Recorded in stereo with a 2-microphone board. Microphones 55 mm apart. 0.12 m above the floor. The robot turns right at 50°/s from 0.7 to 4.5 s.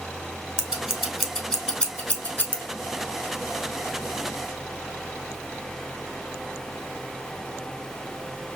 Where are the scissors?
15° right (ahead or behind), 0.7 m; by 2.6 s 35° left (ahead or behind), 0.7 m.